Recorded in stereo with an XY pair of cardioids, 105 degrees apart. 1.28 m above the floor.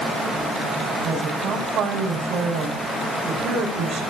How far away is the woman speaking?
About 8.5 m.